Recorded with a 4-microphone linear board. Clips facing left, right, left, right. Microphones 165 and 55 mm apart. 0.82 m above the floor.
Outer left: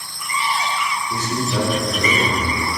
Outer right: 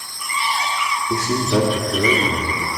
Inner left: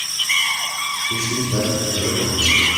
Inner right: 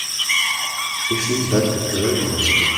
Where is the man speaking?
55° right (ahead or behind), 1.8 m.